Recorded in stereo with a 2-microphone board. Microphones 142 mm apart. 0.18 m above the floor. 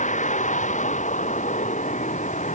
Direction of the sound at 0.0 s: 55° left (ahead or behind).